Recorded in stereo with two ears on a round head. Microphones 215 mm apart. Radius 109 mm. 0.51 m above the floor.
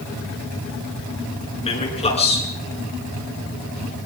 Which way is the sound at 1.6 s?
25° left (ahead or behind).